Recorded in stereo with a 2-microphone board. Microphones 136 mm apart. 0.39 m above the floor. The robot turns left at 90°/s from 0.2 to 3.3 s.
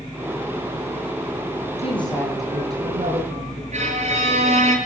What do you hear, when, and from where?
1.8 s a woman speaking: 55° left, 8.5 m; by 3.6 s 80° right, 8.5 m
3.7 s a violin: 60° right (ahead or behind), 5.5 m